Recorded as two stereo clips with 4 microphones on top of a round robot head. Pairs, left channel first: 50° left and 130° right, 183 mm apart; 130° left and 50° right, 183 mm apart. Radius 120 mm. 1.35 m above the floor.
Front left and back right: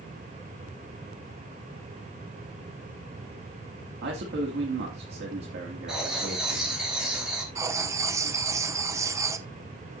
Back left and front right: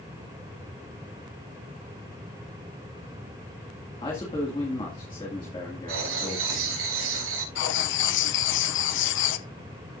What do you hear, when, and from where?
4.0 s a man speaking: 165° right, 2.5 m
5.9 s writing: 45° right, 4 m
7.5 s writing: 155° left, 0.7 m